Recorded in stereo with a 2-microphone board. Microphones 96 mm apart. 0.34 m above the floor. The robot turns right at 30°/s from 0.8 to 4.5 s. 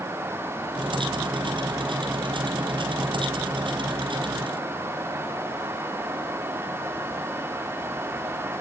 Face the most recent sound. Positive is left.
No sound to turn to.